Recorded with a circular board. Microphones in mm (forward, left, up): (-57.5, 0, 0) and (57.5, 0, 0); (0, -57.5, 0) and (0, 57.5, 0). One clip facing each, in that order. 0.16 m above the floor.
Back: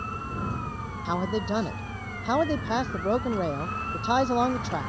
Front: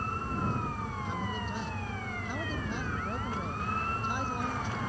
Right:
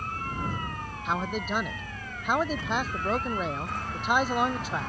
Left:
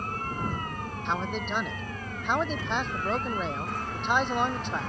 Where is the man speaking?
175° right.